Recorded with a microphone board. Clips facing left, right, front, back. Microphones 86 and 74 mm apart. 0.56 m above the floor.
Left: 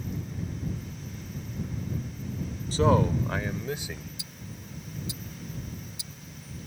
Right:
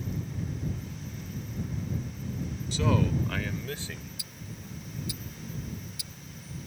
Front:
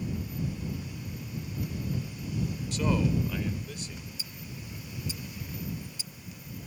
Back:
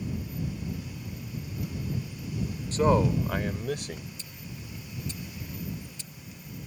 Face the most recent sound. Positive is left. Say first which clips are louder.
# even, even
turn(degrees=80)